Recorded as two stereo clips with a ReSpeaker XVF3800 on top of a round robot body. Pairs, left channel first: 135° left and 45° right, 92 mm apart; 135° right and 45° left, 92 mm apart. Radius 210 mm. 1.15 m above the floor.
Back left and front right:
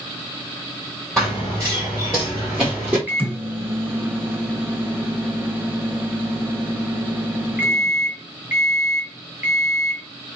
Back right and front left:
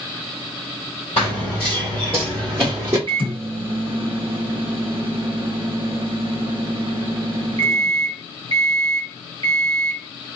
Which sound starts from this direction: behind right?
Running footsteps, at 1.2 s.